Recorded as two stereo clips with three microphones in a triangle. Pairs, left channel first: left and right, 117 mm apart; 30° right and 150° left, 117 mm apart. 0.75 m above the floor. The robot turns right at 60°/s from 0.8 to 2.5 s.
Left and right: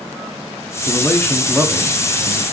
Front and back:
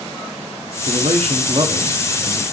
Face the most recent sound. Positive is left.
turn(degrees=-120)